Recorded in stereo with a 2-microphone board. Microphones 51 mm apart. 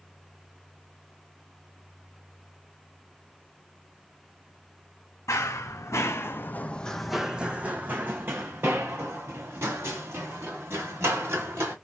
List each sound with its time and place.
5.3 s running footsteps: 75° left (ahead or behind), 1.0 m; by 11.8 s 60° right (ahead or behind), 3 m